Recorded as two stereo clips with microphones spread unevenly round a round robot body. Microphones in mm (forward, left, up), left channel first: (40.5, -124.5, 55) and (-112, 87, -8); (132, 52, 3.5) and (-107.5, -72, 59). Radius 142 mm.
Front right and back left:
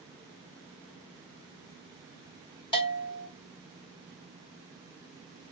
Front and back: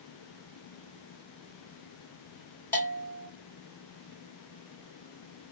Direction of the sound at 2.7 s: 25° left.